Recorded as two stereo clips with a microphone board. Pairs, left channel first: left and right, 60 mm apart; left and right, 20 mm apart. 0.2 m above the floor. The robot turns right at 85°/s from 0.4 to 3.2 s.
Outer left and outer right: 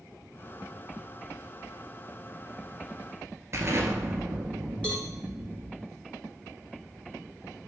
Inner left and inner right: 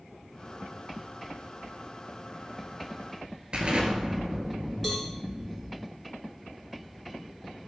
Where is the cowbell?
15° left (ahead or behind), 0.9 m.